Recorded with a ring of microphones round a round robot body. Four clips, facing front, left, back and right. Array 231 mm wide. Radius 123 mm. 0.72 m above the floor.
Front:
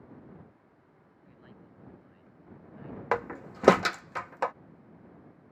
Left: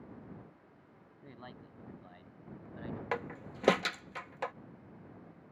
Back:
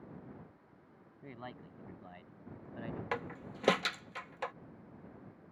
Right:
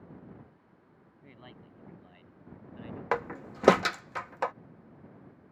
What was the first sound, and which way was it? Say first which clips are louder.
A man speaking: left 1 dB, back 7 dB; 165° left.